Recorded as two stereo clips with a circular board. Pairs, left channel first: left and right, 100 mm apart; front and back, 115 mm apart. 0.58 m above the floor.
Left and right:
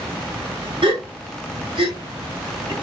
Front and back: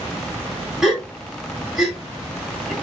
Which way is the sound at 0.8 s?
90° right.